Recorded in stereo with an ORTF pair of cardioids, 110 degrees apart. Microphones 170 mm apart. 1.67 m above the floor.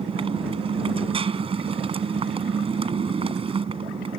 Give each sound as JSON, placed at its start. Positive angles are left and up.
{"t": 0.0, "sound": "a motorcycle", "azimuth_deg": -35}